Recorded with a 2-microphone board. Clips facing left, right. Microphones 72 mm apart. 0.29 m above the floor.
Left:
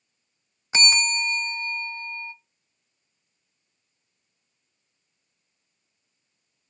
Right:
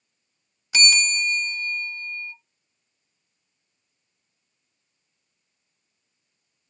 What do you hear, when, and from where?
0.7 s a bell: 30° left (ahead or behind), 0.7 m